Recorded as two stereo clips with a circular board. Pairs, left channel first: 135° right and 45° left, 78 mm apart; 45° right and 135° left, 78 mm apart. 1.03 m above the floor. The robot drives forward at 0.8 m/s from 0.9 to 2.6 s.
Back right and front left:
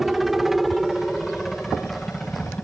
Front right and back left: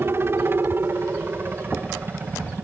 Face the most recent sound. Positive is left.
turn(degrees=155)